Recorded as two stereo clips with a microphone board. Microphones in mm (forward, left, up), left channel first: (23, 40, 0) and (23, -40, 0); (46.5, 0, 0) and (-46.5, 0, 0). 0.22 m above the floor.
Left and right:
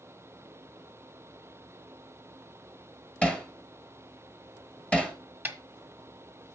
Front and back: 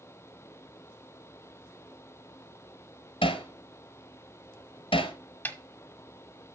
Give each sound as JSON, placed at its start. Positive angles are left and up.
{"t": 3.2, "sound": "hammering", "azimuth_deg": 15, "distance_m": 1.4}
{"t": 5.5, "sound": "a snare drum", "azimuth_deg": -45, "distance_m": 1.1}